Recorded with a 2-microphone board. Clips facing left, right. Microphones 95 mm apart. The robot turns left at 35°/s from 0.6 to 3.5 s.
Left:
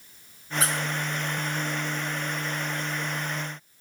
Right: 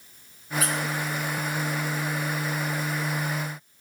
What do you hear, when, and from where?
0.6 s a squeak: 40° left (ahead or behind), 4 m; by 0.7 s 45° left (ahead or behind), 4 m